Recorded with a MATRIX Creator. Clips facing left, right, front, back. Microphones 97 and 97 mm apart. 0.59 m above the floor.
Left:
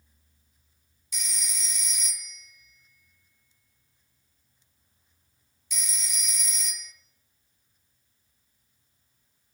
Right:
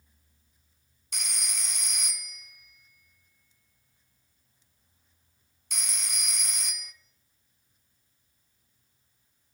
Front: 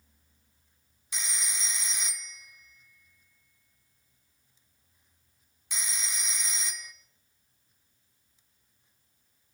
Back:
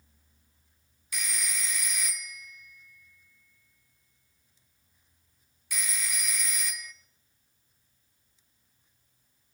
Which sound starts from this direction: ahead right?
A phone ringing, at 1.1 s.